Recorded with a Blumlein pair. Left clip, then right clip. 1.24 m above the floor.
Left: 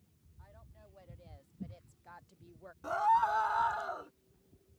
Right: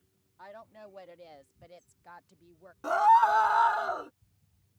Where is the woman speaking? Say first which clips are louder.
Right 14 dB; 35° right; by 2.7 s 5° left.